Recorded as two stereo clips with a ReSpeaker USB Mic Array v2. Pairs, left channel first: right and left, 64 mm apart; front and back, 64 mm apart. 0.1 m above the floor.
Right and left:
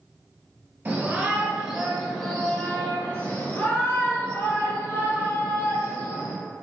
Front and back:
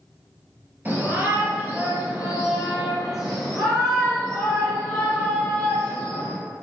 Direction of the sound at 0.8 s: 135° left.